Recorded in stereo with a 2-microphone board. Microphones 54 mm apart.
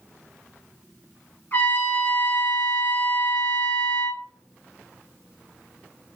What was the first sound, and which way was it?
A trumpet, 45° left (ahead or behind).